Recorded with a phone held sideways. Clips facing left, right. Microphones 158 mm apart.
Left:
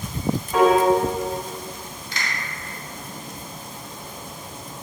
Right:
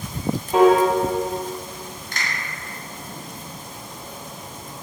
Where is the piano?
25° right (ahead or behind), 0.7 m.